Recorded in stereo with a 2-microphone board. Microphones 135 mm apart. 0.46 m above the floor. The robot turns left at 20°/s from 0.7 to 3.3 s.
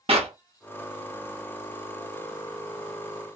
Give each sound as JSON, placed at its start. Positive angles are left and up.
{"t": 0.1, "sound": "a clap", "side_deg": -45, "distance_m": 0.7}